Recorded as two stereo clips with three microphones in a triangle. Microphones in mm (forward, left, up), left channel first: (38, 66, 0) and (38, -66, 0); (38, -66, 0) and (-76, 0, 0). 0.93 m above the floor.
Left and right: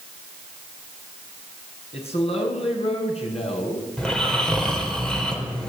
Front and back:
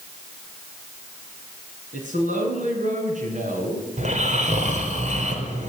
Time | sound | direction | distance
1.9 | a man speaking | 130° left | 8.5 m
4.0 | snoring | 175° left | 4 m